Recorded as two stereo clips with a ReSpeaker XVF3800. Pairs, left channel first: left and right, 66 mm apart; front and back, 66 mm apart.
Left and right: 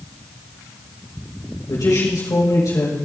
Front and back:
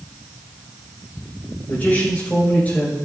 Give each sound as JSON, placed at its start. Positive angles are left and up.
{"t": 1.7, "sound": "a man speaking", "azimuth_deg": 65, "distance_m": 6.0}